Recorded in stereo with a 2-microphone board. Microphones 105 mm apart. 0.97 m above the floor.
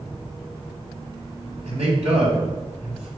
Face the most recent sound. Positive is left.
turn(degrees=-85)